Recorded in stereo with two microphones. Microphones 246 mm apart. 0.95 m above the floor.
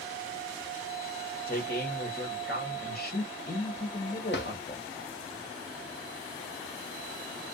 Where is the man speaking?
40° left (ahead or behind), 1.3 m.